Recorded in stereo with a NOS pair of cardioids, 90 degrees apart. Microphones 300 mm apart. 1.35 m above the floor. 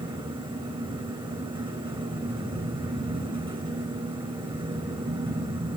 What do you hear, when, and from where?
0.0 s a fan: 15° right, 5 m